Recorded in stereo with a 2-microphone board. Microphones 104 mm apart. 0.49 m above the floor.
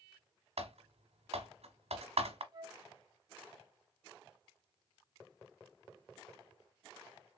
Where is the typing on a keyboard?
80° right, 0.9 m.